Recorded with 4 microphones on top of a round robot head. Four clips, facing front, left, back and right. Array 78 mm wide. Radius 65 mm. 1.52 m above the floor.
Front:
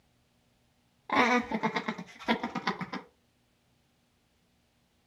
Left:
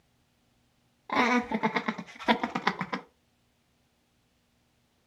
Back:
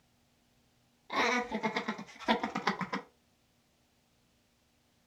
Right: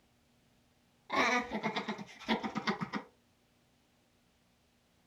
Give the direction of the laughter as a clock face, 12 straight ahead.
11 o'clock.